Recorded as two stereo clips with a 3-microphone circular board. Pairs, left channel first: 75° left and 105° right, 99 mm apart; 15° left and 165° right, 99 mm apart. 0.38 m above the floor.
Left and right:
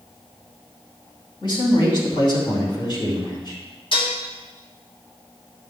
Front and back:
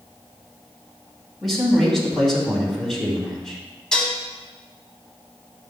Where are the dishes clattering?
95° left, 1.9 m.